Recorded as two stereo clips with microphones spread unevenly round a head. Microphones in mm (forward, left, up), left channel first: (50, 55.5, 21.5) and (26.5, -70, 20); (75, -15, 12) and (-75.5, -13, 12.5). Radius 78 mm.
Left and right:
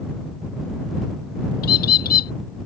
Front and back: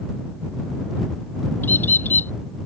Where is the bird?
80° left.